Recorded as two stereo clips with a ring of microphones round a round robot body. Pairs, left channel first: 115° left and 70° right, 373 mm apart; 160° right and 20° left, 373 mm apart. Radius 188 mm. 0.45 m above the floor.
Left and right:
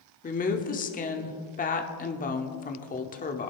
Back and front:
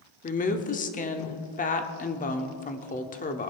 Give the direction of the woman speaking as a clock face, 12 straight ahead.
7 o'clock.